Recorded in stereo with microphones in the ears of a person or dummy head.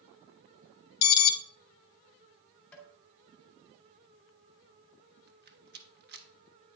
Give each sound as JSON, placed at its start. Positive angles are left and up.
{"t": 1.0, "sound": "an alarm", "side_deg": 55, "distance_m": 0.8}
{"t": 2.7, "sound": "tapping", "side_deg": 10, "distance_m": 1.8}
{"t": 5.3, "sound": "a rattle", "side_deg": -45, "distance_m": 1.0}